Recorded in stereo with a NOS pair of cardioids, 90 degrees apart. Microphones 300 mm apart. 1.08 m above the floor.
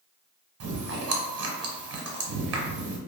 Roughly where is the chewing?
Ahead right.